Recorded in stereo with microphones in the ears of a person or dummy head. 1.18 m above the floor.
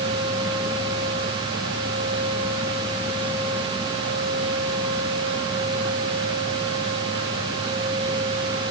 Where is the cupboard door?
I don't hear a cupboard door.